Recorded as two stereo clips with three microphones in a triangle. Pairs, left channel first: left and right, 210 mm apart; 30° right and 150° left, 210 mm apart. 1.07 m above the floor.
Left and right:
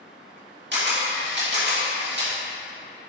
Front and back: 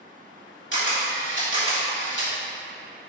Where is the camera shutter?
55° right, 2 m.